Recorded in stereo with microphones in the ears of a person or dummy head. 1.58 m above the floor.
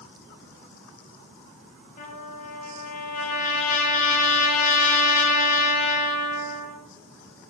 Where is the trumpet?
45° left (ahead or behind), 6 m.